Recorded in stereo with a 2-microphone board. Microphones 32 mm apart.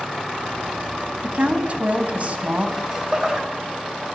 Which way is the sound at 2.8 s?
25° right (ahead or behind).